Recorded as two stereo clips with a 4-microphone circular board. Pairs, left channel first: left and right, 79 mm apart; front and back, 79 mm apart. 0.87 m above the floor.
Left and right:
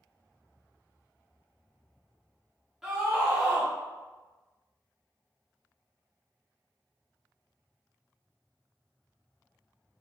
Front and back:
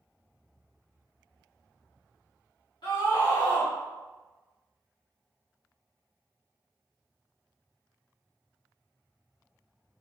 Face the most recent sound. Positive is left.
turn(degrees=-5)